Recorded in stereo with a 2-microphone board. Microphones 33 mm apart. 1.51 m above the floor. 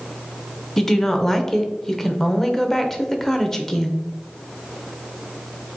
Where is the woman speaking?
15° left (ahead or behind), 0.7 m.